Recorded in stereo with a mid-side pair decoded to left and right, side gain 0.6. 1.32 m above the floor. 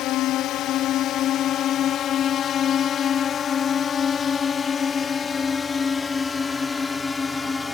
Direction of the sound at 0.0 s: 65° left.